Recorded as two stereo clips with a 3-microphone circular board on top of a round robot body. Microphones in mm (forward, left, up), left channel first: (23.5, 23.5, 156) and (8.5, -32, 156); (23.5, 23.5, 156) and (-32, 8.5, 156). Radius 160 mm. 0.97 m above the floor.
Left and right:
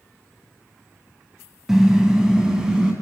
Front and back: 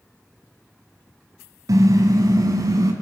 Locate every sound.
1.7 s a car horn: 170° left, 3.5 m; by 2.9 s 175° left, 4 m